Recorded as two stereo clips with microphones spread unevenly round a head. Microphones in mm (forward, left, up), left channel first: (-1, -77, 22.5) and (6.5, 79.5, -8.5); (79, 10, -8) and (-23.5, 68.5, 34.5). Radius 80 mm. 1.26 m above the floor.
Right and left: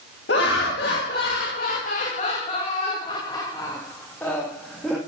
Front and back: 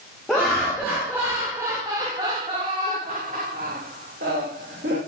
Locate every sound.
0.3 s laughter: 115° right, 2 m; by 5.0 s 175° left, 2 m